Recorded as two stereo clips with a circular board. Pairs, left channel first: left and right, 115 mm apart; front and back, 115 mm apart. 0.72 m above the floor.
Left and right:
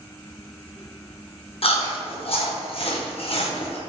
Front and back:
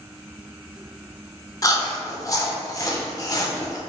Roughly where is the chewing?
Ahead left.